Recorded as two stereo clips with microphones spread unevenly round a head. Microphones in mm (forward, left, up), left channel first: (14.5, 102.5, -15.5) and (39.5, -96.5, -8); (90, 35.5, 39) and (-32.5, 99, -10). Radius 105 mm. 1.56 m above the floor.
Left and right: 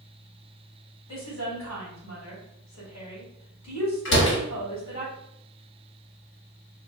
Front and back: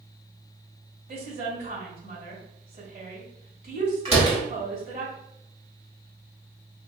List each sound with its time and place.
1.1 s a woman speaking: 130° left, 1.9 m
4.0 s a door slam: 100° left, 1.2 m